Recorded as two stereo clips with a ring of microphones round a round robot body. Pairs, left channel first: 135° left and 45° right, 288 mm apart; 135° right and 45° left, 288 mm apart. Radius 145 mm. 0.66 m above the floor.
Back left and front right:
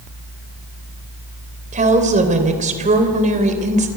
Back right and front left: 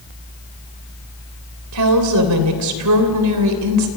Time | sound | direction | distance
1.7 | a woman speaking | 20° left | 3 m